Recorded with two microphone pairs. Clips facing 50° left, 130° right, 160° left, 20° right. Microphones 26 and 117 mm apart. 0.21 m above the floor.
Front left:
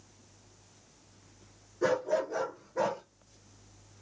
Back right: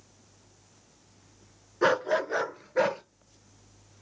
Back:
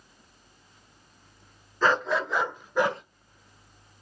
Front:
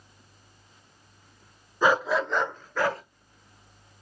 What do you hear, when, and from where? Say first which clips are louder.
1.8 s a dog barking: back right 4 dB, front 2 dB; 100° right, 0.7 m; by 3.0 s 135° right, 1.1 m